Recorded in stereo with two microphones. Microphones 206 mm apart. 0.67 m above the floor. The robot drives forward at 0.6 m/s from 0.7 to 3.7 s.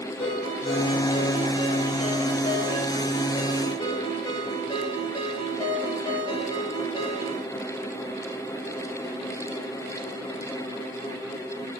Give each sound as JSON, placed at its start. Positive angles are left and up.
{"t": 0.2, "sound": "a ringtone", "side_deg": 30, "distance_m": 8.5}